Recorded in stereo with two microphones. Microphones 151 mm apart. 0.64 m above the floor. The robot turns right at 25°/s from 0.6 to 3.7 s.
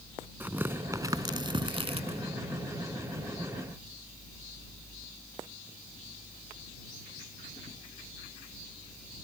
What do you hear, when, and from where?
0.4 s tearing paper: 15° right (ahead or behind); by 2.2 s 50° right (ahead or behind)